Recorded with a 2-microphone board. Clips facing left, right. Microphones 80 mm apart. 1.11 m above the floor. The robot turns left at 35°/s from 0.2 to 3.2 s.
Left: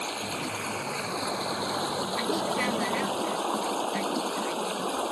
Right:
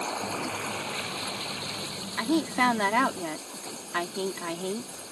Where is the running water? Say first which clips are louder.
Right 1 dB; 165° right; by 5.1 s 90° left.